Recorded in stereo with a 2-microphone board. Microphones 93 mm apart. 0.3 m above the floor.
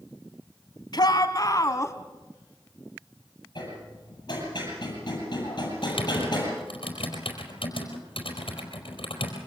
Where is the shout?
50° left (ahead or behind), 2 m; by 1.9 s 30° left (ahead or behind), 2 m.